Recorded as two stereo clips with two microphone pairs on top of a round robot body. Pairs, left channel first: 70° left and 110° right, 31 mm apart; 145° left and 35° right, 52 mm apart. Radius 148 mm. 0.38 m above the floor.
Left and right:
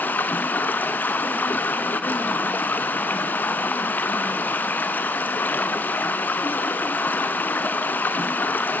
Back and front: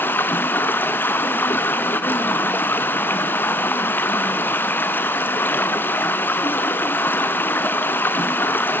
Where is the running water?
90° left, 0.8 m.